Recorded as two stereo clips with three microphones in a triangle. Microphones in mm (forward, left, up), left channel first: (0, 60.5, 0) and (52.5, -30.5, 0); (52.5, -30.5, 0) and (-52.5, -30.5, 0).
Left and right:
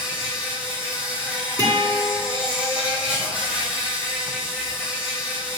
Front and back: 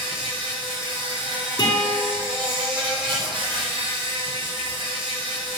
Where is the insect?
140° right, 1.5 m.